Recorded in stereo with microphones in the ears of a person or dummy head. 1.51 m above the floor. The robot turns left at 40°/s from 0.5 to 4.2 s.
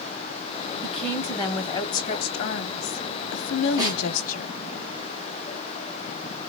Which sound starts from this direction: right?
A snare drum, at 3.8 s.